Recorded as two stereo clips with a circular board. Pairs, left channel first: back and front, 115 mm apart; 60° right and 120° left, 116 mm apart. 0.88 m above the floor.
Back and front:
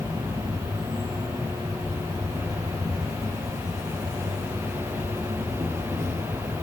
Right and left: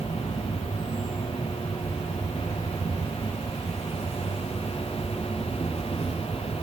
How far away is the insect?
About 4.5 m.